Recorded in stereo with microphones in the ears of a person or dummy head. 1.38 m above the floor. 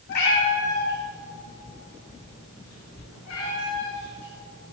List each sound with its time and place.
0.1 s a cat meowing: 55° left (ahead or behind), 4.5 m; by 4.7 s 85° left, 8.5 m